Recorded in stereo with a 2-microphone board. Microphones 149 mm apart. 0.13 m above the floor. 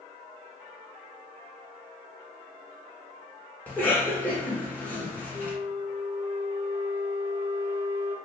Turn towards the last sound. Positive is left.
turn(degrees=-40)  # may be behind; listen again after turning